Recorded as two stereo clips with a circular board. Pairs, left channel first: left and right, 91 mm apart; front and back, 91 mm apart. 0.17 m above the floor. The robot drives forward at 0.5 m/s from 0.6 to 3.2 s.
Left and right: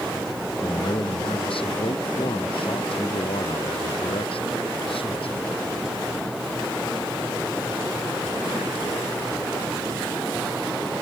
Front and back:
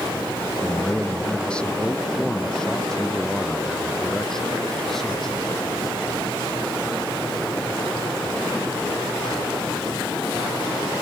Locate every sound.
0.6 s a man speaking: 75° left; by 5.5 s 85° left